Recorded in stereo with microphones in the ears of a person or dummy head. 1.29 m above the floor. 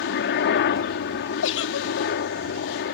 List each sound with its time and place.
0.0 s a helicopter: 55° left (ahead or behind)
1.4 s a giggle: 65° left (ahead or behind)